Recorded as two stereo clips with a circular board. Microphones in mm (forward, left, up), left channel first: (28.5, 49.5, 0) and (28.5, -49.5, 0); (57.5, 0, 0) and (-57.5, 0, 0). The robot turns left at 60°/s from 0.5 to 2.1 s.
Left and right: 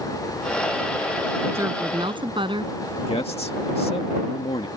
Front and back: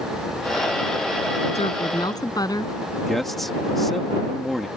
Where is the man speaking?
90° left.